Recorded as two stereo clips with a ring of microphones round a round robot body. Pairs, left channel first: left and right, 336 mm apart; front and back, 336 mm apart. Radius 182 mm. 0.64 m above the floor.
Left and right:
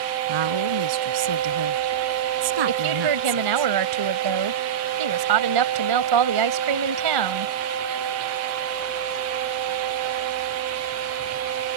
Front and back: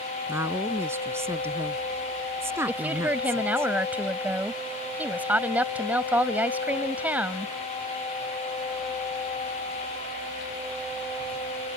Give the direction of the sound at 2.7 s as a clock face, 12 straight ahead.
3 o'clock.